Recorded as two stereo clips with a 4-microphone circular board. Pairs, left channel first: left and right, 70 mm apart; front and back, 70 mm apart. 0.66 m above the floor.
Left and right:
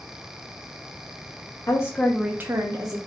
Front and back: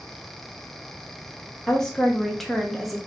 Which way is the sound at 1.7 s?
80° left.